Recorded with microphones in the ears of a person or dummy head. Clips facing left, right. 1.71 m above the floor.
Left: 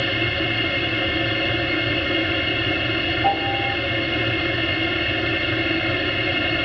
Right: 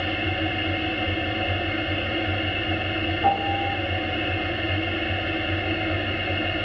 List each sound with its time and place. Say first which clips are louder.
0.0 s a machine running: left 2 dB; 65° left (ahead or behind), 1.6 m
3.2 s a piano: even; 60° right (ahead or behind), 1.9 m